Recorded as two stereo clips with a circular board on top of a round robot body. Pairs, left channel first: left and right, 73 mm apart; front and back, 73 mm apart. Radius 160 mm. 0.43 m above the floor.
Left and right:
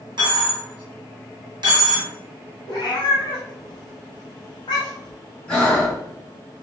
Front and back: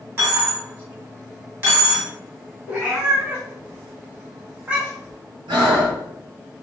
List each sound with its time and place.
0.2 s a dropped coin: 115° right, 1.2 m
2.7 s a cat meowing: 110° left, 0.6 m
5.5 s breathing: 170° left, 1.4 m